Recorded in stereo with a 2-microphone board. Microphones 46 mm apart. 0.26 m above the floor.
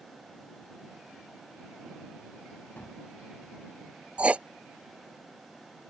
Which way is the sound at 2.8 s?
50° left (ahead or behind).